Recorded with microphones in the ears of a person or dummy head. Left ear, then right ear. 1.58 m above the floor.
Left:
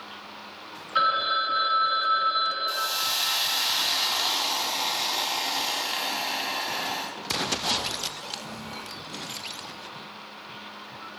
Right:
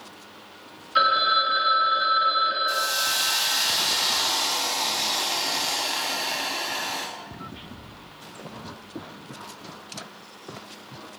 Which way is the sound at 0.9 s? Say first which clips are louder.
Right 4 dB; centre (ahead or behind).